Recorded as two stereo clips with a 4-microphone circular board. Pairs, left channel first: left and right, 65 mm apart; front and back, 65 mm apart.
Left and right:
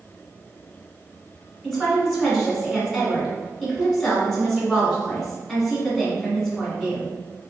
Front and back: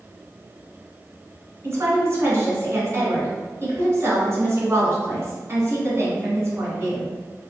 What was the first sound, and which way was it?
A woman speaking, 170° left.